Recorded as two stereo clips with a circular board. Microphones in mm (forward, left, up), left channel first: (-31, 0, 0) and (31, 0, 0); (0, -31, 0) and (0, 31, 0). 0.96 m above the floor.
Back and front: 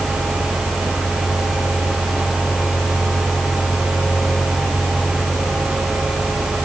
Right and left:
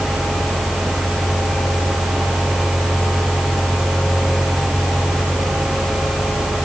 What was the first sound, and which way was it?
Only background noise.